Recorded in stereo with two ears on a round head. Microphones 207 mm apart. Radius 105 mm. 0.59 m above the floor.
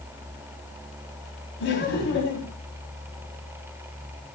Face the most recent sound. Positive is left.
turn(degrees=50)  # may be behind; listen again after turning